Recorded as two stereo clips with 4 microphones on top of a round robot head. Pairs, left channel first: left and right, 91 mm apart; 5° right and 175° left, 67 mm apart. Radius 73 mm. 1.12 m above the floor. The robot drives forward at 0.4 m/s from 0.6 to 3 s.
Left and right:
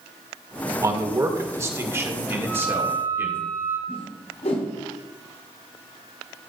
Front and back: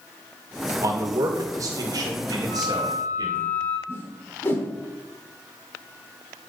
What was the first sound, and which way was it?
A man speaking, 140° right.